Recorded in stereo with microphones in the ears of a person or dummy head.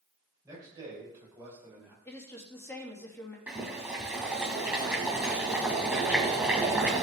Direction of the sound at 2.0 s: 15° left (ahead or behind).